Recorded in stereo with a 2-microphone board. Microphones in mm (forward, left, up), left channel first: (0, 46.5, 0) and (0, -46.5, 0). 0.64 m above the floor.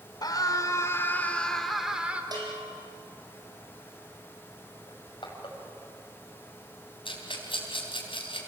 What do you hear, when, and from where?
0.2 s a scream: 50° left (ahead or behind), 2.5 m; by 2.2 s 15° right (ahead or behind), 2.5 m
2.3 s a bell: 50° right (ahead or behind), 5.5 m
4.9 s crushing: 65° left (ahead or behind), 4.5 m
7.0 s a rattle: 75° left (ahead or behind), 4 m